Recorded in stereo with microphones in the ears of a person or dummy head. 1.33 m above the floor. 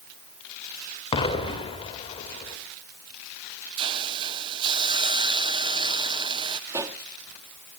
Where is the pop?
15° right (ahead or behind), 1.1 m.